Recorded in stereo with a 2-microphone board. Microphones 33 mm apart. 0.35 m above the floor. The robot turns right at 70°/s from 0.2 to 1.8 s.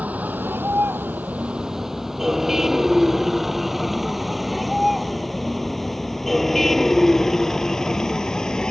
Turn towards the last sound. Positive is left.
turn(degrees=20)  # may be behind; listen again after turning